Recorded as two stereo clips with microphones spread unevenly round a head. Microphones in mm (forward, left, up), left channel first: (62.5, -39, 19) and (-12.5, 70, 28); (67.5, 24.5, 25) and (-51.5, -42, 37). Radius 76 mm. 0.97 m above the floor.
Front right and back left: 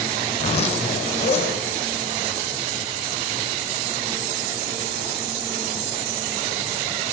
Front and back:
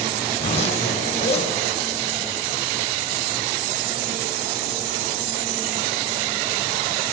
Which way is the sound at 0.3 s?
15° right.